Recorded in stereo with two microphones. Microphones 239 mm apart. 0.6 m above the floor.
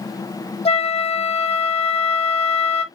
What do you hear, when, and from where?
0.7 s a flute: 25° left (ahead or behind), 0.7 m